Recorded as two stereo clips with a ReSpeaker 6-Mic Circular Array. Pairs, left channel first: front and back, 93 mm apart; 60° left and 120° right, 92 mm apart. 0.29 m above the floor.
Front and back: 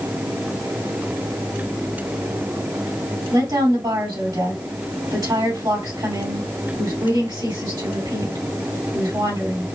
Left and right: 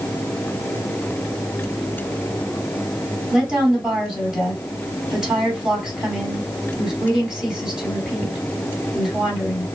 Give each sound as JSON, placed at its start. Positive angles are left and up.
{"t": 3.3, "sound": "a woman speaking", "azimuth_deg": 155, "distance_m": 2.5}